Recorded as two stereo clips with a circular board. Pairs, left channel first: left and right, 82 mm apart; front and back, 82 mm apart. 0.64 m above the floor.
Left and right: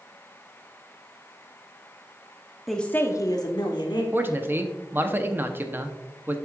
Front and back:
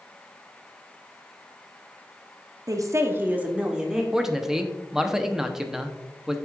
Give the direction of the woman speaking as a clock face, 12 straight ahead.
6 o'clock.